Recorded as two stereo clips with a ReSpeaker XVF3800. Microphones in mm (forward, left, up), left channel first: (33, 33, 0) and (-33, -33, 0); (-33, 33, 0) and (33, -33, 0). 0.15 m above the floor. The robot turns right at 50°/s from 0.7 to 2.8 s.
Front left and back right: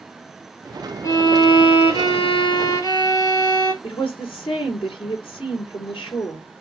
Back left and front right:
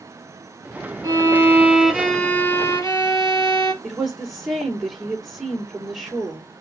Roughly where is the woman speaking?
Ahead left.